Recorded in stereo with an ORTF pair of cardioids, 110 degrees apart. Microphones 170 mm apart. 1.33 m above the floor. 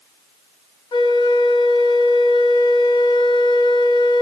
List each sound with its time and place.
0.9 s a flute: 30° left, 1.2 m